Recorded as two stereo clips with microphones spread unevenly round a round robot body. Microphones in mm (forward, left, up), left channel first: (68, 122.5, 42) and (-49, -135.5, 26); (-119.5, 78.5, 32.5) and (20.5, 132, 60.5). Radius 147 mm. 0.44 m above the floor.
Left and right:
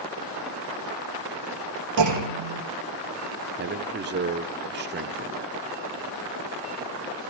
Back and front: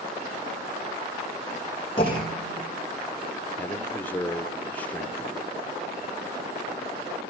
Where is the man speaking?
100° right, 1.0 m.